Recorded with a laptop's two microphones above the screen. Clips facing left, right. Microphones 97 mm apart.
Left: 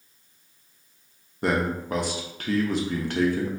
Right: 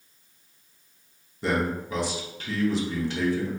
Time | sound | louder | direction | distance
1.4 | a man speaking | left 1 dB | 55° left (ahead or behind) | 0.6 m